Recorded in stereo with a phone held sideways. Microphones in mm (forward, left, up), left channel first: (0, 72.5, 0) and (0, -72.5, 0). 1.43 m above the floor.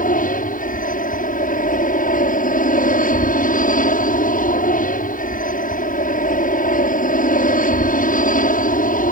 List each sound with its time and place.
0.0 s an aircraft: 70° left (ahead or behind)